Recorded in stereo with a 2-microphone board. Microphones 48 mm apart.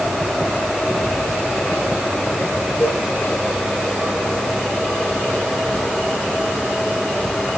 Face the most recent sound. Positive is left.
turn(degrees=45)  # may be behind; listen again after turning